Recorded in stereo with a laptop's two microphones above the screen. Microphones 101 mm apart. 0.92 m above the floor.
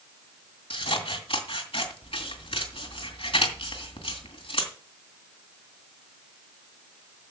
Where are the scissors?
65° left (ahead or behind), 2.5 m.